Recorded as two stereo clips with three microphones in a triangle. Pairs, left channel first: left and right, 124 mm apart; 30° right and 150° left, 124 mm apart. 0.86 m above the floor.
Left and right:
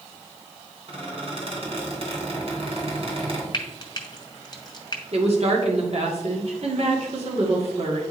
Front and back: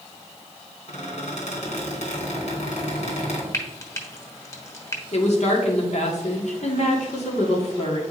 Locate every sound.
0.9 s a squeak: 50° right, 2.5 m
3.5 s frying: 35° left, 1.1 m
5.1 s a woman speaking: 55° right, 1.9 m